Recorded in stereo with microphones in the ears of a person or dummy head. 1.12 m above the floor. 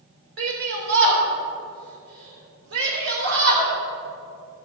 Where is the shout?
70° right (ahead or behind), 3 m.